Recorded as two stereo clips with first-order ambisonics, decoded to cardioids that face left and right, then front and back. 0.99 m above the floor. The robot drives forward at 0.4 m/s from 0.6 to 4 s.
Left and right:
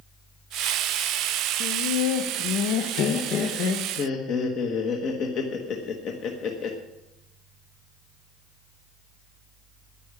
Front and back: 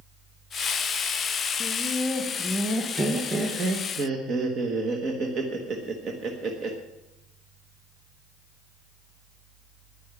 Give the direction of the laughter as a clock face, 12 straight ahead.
10 o'clock.